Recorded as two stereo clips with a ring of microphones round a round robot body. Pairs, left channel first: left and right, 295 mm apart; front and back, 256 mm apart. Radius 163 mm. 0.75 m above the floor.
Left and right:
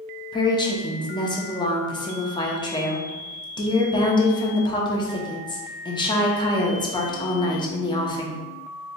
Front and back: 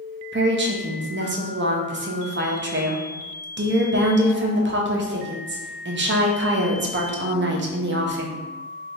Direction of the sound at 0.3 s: 160° left.